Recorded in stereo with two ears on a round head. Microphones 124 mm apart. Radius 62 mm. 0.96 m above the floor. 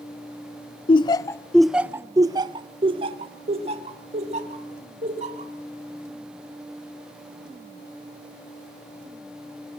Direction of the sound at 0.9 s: 40° left (ahead or behind).